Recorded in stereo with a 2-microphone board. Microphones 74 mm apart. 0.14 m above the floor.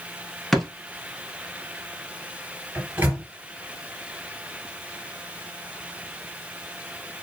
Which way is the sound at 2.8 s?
25° right (ahead or behind).